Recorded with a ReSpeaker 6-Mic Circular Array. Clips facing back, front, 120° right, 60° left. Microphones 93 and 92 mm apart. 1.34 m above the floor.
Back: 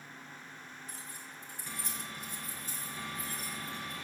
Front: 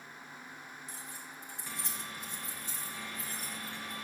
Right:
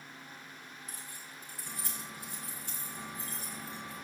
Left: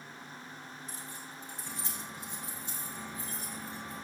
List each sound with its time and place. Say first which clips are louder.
0.9 s keys jangling: front 1 dB, left 3 dB; 5° right, 5 m; by 3.9 s 15° right, 7.5 m